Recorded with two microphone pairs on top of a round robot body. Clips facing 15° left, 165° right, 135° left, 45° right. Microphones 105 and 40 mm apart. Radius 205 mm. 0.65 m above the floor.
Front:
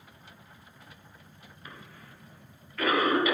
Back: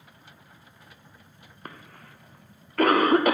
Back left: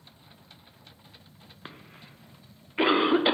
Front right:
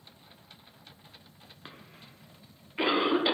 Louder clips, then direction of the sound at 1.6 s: Back 4 dB, back left 4 dB; 165° right.